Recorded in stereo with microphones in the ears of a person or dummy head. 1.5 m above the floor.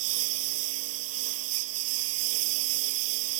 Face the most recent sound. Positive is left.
turn(degrees=-75)  # may be behind; listen again after turning